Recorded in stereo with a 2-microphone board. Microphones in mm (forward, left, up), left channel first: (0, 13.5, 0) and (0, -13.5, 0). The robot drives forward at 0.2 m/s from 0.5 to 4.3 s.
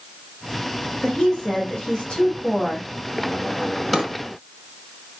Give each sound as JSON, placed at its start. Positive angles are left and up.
{"t": 1.0, "sound": "a woman speaking", "side_deg": 30, "distance_m": 1.7}
{"t": 3.9, "sound": "a drawer", "side_deg": 0, "distance_m": 1.2}